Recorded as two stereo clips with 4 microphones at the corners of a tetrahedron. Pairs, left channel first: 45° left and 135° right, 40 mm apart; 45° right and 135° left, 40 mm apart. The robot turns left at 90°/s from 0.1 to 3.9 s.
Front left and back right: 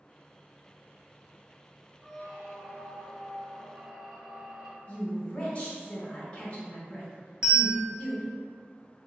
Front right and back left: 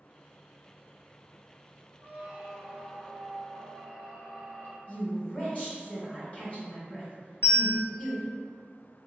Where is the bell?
65° right, 1.1 m.